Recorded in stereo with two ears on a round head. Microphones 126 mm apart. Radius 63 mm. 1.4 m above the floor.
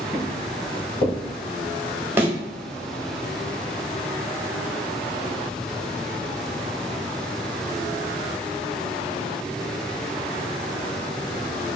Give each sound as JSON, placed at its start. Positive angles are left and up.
{"t": 0.1, "sound": "footsteps", "side_deg": 20, "distance_m": 1.9}
{"t": 2.2, "sound": "a thud", "side_deg": -15, "distance_m": 0.7}